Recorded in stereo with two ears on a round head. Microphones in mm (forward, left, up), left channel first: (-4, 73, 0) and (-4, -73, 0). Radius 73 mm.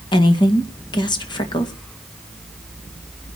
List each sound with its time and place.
0.1 s a woman speaking: 30° left (ahead or behind), 1.9 m